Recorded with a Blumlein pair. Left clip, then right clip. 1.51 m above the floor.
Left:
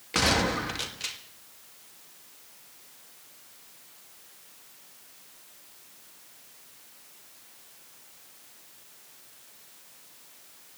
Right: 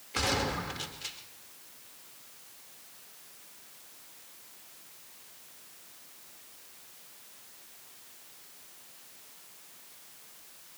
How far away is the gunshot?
About 2 m.